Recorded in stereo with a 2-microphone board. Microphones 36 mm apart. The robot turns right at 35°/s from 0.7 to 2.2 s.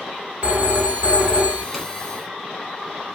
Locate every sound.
0.4 s a phone ringing: 80° right, 0.8 m; by 1.6 s 45° right, 0.8 m
1.7 s a zipper: centre (ahead or behind), 0.9 m